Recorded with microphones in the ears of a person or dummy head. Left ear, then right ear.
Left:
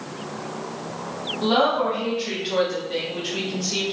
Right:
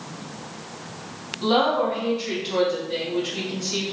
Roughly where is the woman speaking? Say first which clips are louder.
Even; centre.